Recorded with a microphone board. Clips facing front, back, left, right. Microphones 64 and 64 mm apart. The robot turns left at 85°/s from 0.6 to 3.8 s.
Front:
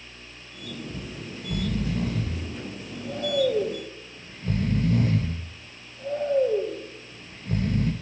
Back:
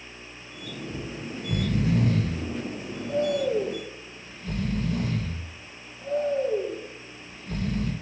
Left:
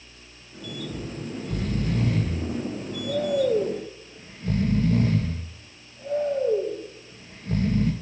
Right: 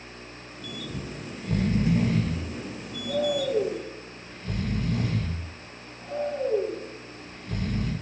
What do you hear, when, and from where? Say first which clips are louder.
0.9 s snoring: back 2 dB, left 3 dB; 75° right, 1.8 m; by 7.9 s 40° left, 1.8 m